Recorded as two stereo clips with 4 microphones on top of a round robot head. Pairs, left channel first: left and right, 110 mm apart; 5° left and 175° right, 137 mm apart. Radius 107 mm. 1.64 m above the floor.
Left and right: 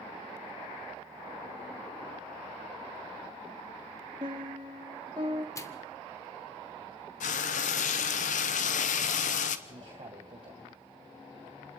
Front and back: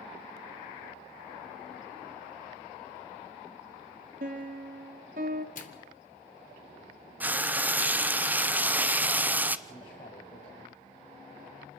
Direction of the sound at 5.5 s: 30° left.